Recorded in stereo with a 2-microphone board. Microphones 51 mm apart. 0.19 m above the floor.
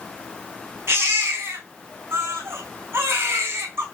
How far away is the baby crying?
About 4 m.